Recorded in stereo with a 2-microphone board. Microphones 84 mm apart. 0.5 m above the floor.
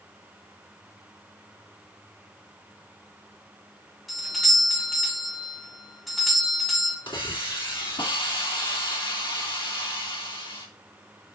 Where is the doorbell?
Centre (ahead or behind), 2 m.